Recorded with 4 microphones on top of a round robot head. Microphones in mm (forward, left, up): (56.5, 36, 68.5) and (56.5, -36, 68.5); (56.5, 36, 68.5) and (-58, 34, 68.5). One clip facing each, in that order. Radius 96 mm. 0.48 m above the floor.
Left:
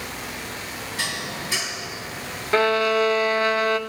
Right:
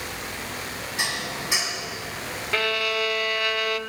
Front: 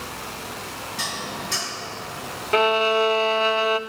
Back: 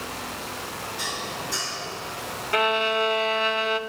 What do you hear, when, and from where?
1.0 s dishes clattering: 20° right, 3 m
2.5 s a violin: 45° left, 0.6 m